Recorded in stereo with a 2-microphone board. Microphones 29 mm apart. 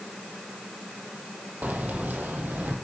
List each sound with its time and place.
1.6 s keys jangling: 70° right (ahead or behind), 4.5 m; by 2.8 s 80° right, 5 m